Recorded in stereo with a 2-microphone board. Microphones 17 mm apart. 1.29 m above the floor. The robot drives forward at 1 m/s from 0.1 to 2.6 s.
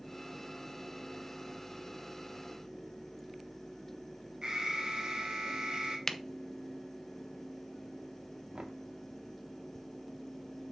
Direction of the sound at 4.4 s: 55° right (ahead or behind).